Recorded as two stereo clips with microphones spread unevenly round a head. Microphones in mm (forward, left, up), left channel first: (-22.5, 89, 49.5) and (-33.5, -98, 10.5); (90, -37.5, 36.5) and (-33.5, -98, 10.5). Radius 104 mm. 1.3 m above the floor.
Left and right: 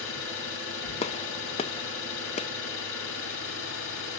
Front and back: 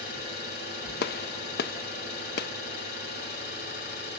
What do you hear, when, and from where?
0.0 s an engine running: 50° left, 6 m
1.0 s a gunshot: 20° left, 0.6 m